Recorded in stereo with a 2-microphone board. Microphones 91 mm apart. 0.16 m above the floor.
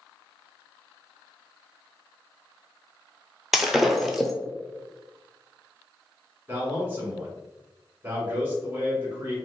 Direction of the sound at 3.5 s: Centre (ahead or behind).